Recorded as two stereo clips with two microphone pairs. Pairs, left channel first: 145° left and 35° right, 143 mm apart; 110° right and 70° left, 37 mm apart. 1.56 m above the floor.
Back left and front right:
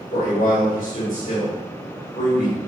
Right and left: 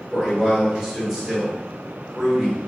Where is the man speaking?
160° left, 1.7 m.